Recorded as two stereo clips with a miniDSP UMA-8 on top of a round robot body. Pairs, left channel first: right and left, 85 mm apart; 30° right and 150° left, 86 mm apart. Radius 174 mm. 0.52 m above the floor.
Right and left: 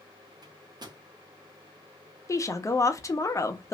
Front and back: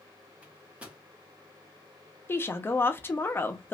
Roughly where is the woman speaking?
Right.